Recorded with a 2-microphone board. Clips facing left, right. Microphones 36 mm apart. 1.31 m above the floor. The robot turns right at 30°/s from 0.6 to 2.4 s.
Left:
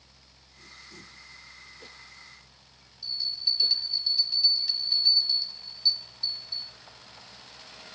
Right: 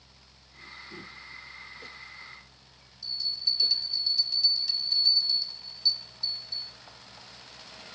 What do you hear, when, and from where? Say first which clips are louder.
3.0 s a bell: left 1 dB; 15° left (ahead or behind), 3 m